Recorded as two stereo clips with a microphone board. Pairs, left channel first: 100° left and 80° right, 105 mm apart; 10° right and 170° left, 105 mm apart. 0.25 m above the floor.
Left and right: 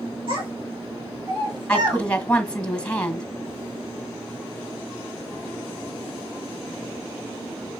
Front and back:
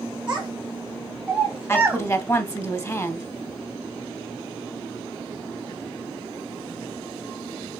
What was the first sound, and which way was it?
A child speaking, 115° right.